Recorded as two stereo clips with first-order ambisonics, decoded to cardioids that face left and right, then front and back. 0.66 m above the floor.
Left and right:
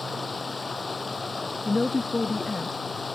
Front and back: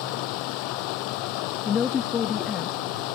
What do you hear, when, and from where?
0.0 s running water: 10° left
1.6 s a woman speaking: 15° left